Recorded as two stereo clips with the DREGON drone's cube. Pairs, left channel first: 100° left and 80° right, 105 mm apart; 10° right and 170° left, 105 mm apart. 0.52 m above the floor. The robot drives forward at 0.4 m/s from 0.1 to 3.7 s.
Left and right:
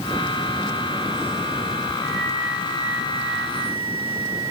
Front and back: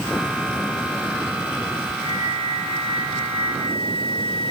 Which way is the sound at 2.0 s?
155° right.